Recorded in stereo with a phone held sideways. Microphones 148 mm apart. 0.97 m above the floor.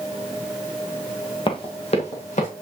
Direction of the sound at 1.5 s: 35° left (ahead or behind).